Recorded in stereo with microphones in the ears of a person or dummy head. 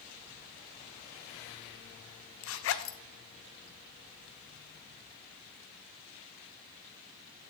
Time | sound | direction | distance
2.4 | a zipper | 65° left (ahead or behind) | 0.5 m